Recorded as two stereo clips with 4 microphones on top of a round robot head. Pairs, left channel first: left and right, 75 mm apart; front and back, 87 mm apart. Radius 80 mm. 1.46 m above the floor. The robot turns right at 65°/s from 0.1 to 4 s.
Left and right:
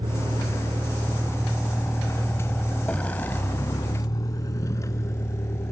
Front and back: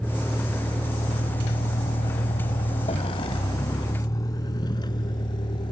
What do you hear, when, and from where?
0.0 s a vehicle: 75° right; by 5.7 s 35° left